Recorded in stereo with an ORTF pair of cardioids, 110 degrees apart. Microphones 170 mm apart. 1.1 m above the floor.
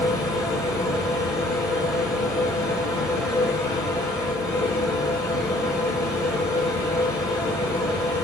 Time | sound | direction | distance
0.0 | a machine running | 20° left | 1.8 m